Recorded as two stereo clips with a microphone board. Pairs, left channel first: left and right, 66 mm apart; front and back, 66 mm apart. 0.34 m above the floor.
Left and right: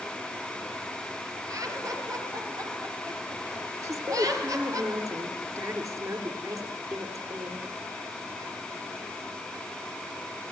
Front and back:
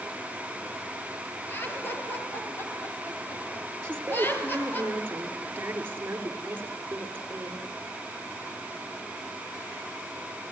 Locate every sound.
1.5 s laughter: 55° right, 5.5 m
3.8 s a woman speaking: 125° right, 5.5 m